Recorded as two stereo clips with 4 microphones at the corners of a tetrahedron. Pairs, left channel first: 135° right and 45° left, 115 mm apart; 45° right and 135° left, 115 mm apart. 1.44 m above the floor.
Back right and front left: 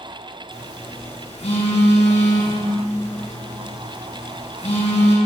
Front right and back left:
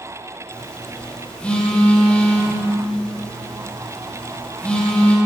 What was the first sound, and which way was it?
A phone buzzing, 125° right.